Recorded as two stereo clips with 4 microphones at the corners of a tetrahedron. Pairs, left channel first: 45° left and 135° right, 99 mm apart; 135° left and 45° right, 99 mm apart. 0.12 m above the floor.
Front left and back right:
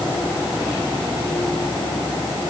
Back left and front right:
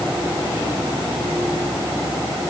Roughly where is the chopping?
I don't hear chopping.